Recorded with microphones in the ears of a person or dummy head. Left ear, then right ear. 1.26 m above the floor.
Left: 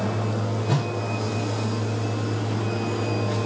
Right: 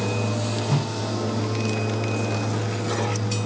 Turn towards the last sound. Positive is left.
turn(degrees=70)  # may be behind; listen again after turning